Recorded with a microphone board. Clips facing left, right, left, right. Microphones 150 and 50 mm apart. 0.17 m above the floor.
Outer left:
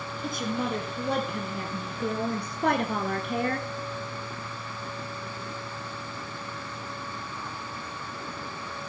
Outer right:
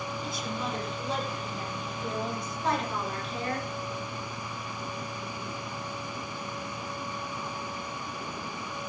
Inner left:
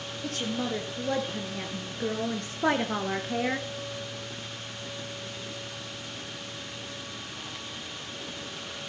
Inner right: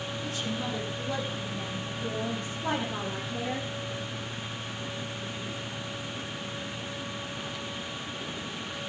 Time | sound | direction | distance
0.2 | a woman speaking | 55° left (ahead or behind) | 3.5 m